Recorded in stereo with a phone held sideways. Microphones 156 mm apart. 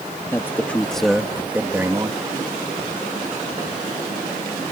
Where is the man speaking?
15° left (ahead or behind); by 2.2 s 25° right (ahead or behind).